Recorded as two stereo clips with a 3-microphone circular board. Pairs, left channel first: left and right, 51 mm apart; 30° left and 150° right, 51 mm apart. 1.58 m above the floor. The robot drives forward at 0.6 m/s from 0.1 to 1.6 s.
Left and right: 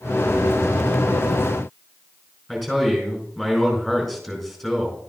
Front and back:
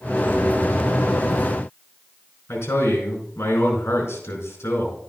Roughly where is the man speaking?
Ahead.